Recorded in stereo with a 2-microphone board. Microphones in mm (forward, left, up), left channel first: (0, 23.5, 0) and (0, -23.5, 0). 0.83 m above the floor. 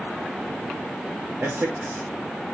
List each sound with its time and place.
1.4 s a man speaking: 45° right (ahead or behind), 1.7 m